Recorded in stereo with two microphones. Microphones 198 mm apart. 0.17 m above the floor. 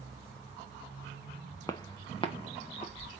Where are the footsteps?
15° left (ahead or behind), 1.2 m; by 3.2 s 35° left (ahead or behind), 3 m.